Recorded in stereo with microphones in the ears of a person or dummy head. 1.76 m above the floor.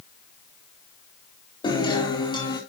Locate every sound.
1.6 s a guitar: 20° left (ahead or behind), 4 m